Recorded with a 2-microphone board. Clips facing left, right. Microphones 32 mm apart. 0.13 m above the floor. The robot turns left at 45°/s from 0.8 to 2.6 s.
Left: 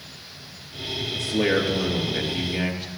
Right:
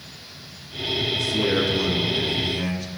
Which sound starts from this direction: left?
A man speaking, at 1.1 s.